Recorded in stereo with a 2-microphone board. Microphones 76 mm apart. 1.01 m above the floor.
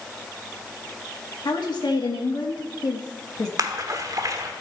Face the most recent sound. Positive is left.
turn(degrees=-50)  # may be behind; listen again after turning